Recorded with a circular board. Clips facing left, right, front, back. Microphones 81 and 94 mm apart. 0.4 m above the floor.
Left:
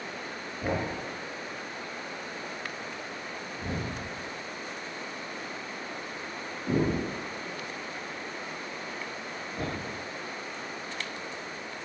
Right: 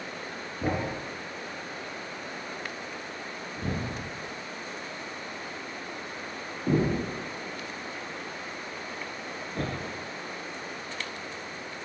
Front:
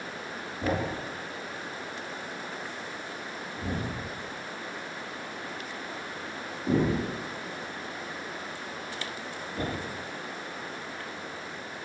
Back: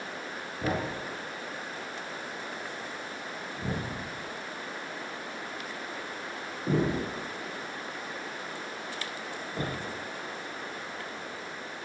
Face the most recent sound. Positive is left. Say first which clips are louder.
# right 1 dB, front 2 dB
turn(degrees=-110)